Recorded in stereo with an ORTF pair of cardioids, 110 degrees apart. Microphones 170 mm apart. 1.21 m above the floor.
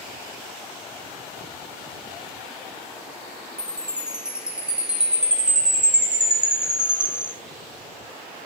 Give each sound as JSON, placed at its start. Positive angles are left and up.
{"t": 3.6, "sound": "a chime", "azimuth_deg": -5, "distance_m": 3.0}